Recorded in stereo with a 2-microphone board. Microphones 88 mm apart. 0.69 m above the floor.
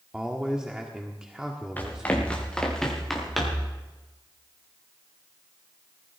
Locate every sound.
0.1 s a man speaking: 10° right (ahead or behind), 1.4 m
1.8 s running footsteps: 20° left (ahead or behind), 4.5 m; by 3.7 s 5° right (ahead or behind), 5.5 m